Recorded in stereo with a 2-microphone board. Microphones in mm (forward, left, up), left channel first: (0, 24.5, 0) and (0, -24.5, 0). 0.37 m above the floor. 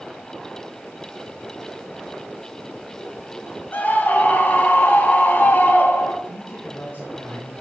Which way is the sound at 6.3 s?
40° left (ahead or behind).